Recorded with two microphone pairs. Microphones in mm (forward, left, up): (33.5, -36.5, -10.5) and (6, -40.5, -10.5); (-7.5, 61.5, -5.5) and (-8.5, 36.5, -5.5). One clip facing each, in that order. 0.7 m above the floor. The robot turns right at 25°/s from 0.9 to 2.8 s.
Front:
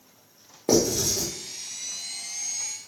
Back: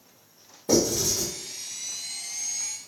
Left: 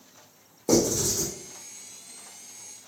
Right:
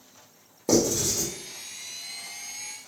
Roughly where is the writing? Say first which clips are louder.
Front 1 dB, even; ahead.